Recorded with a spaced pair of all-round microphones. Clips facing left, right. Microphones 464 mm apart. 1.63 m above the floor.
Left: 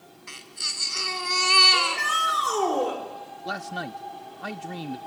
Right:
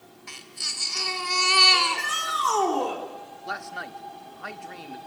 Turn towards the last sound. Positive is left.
turn(degrees=55)  # may be behind; listen again after turning